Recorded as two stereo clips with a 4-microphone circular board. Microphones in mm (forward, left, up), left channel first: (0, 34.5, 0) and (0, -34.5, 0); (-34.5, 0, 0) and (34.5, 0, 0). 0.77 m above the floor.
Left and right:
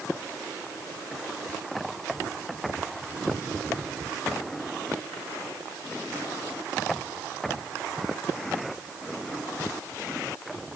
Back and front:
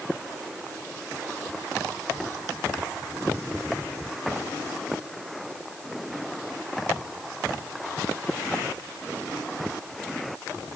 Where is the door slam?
No door slam in this recording.